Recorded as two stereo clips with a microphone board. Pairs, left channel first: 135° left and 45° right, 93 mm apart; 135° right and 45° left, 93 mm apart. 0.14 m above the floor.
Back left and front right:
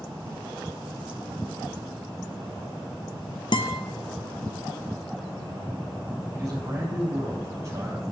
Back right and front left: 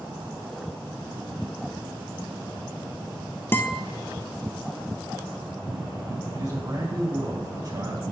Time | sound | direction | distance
3.5 | a guitar | 160° left | 0.7 m
6.3 | a man speaking | 10° left | 3 m